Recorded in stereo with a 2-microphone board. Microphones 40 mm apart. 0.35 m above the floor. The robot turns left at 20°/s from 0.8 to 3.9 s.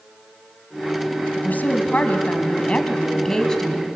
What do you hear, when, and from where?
1.4 s a woman speaking: 55° left, 2 m; by 3.9 s 5° left, 2 m